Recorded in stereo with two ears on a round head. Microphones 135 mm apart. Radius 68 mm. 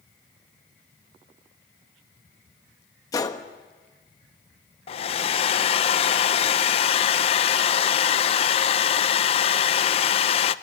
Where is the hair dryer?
40° left (ahead or behind), 0.7 m.